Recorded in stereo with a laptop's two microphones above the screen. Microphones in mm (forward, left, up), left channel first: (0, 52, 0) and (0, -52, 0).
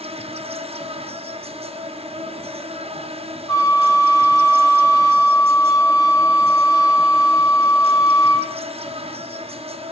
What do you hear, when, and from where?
0.0 s an insect: 70° right (ahead or behind), 0.9 m
3.5 s a flute: 40° left (ahead or behind), 7.5 m